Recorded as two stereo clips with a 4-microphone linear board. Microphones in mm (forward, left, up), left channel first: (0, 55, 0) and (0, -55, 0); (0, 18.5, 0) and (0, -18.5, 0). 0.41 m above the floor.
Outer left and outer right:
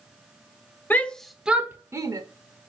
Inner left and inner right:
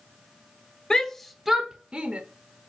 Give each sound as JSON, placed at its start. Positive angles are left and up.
{"t": 0.9, "sound": "a shout", "side_deg": 15, "distance_m": 0.8}